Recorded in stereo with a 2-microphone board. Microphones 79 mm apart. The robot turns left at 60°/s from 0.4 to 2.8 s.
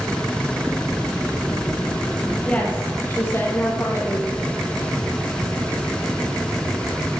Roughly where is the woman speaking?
Centre.